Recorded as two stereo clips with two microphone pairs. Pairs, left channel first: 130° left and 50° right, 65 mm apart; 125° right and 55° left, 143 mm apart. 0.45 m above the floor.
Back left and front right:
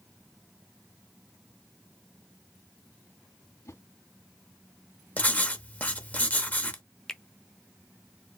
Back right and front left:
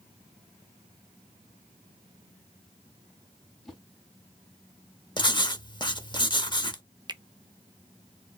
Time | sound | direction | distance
3.6 | a whoosh | 150° left | 3 m
5.2 | writing | 170° right | 0.8 m
7.1 | a finger snap | 60° left | 0.5 m